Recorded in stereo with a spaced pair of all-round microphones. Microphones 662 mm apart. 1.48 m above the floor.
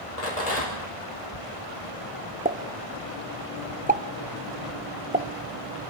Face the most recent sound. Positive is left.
turn(degrees=-15)  # may be behind; listen again after turning